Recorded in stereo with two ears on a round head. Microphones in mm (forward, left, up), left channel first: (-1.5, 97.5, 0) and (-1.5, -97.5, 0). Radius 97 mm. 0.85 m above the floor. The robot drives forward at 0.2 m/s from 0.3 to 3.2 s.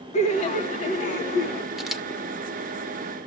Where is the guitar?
No guitar in this recording.